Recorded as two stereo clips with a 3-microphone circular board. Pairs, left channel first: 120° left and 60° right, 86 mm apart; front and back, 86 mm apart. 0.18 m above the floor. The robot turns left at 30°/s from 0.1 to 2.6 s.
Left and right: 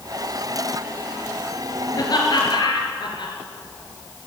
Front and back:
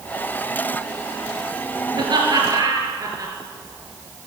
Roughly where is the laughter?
Behind.